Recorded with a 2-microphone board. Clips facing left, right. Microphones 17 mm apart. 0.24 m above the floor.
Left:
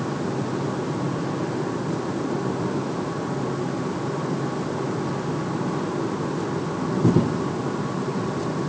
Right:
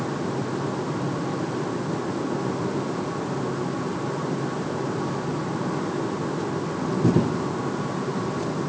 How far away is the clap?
No clap in this recording.